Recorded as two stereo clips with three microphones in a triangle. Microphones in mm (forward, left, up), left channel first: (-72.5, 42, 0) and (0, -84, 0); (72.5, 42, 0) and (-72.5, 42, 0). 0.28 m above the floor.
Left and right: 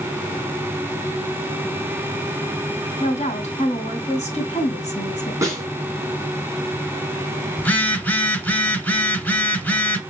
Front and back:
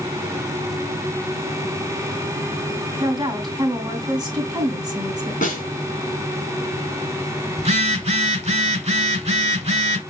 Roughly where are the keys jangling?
No keys jangling in this recording.